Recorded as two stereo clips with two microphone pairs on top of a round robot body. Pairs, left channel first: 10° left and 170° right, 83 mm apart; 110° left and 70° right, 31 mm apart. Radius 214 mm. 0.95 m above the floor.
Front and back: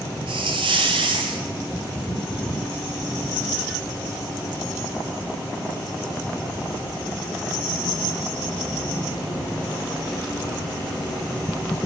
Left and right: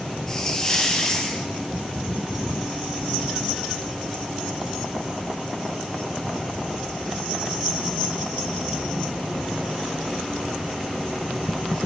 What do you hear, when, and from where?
0.3 s a hiss: straight behind, 0.5 m